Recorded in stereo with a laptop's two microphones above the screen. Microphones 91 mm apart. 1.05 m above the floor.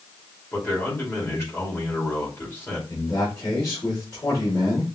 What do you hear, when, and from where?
0.5 s a man speaking: 30° left (ahead or behind), 2.5 m
2.9 s a man speaking: 45° left (ahead or behind), 3 m